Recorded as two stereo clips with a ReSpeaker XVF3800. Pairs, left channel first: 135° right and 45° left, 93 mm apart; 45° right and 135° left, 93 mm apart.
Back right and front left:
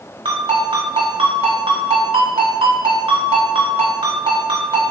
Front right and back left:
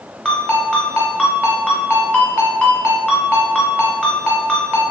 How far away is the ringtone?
About 1.6 m.